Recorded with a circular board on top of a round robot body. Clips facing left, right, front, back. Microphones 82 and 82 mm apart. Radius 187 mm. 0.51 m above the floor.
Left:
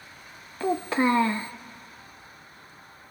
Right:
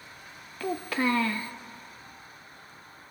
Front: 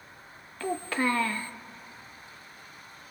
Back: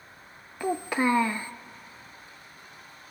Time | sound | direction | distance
0.6 | a child speaking | 125° left | 0.7 m